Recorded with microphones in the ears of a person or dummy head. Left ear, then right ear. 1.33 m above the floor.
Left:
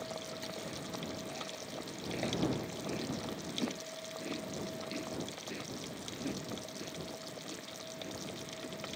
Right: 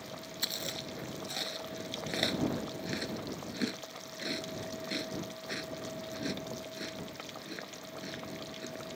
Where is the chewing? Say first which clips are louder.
Right 6 dB; 55° right (ahead or behind).